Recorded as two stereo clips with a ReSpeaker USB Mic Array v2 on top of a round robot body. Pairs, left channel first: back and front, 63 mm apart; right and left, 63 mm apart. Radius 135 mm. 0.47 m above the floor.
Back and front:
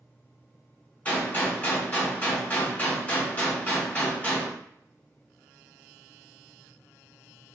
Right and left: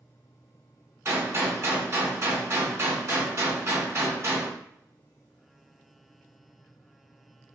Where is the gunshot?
120° left, 1.5 m.